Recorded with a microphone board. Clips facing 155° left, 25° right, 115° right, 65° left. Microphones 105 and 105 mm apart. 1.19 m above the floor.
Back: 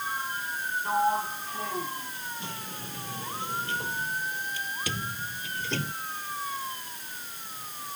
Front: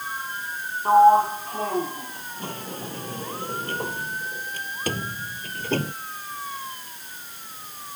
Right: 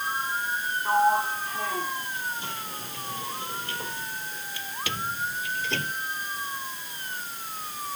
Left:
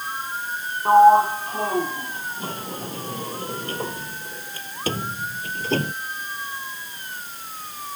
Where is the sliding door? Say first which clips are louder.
Front 13 dB, left 10 dB; 15° left.